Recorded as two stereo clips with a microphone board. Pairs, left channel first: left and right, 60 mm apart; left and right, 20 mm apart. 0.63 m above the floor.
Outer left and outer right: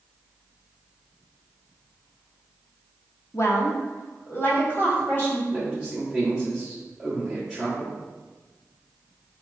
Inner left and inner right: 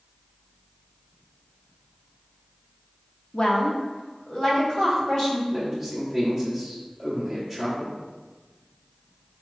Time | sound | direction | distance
3.3 | a woman speaking | 50° left (ahead or behind) | 0.8 m
5.5 | a man speaking | centre (ahead or behind) | 1.0 m